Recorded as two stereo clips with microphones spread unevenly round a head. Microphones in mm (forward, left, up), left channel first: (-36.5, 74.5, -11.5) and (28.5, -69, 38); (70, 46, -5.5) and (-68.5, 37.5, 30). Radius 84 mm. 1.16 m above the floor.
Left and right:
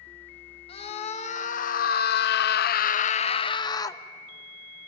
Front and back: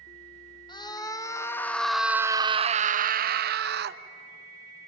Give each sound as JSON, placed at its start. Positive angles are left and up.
{"t": 0.7, "sound": "a scream", "azimuth_deg": 60, "distance_m": 1.4}